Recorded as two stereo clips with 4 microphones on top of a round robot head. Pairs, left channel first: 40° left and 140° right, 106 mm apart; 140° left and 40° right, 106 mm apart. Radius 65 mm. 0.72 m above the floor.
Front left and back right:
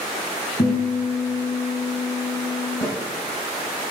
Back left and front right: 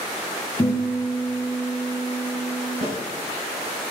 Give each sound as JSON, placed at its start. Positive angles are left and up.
{"t": 0.6, "sound": "a guitar", "azimuth_deg": 75, "distance_m": 3.5}
{"t": 2.8, "sound": "a snare drum", "azimuth_deg": -25, "distance_m": 4.5}